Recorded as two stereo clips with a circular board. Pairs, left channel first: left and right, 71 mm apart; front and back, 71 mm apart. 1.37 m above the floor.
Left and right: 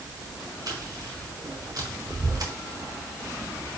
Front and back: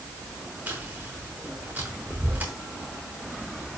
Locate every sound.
0.7 s chewing: 115° right, 4 m